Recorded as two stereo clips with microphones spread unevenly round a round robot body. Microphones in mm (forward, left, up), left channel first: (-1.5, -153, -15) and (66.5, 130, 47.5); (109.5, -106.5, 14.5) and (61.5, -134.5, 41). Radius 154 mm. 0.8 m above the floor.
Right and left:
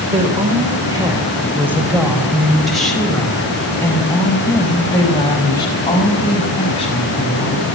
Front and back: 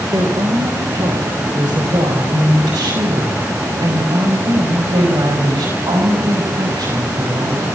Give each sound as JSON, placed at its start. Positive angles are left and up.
{"t": 0.1, "sound": "a woman speaking", "azimuth_deg": 150, "distance_m": 3.5}